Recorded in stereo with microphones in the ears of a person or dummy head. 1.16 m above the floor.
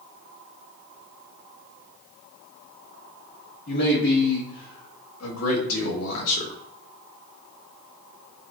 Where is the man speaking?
55° left (ahead or behind), 1.7 m; by 6.6 s 60° left (ahead or behind), 1.2 m.